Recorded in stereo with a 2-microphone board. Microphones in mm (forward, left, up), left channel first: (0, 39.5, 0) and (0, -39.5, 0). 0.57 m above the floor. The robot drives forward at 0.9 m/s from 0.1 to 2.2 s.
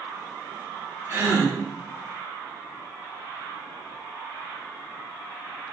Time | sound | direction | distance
1.1 | a gasp | 35° right (ahead or behind) | 1.5 m